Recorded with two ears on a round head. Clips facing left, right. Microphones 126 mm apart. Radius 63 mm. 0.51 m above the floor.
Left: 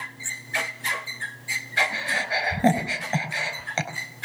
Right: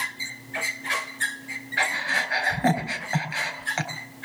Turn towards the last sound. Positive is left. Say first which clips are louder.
# left 1 dB
turn(degrees=30)  # may be behind; listen again after turning